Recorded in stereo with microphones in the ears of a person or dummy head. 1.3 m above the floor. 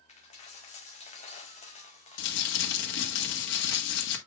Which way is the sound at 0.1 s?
40° left (ahead or behind).